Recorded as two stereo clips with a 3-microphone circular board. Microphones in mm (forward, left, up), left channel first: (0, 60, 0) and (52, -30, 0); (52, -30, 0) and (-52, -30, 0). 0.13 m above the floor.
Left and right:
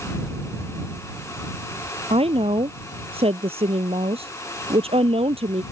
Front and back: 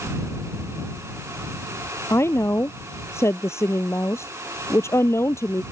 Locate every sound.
2.1 s a woman speaking: 60° right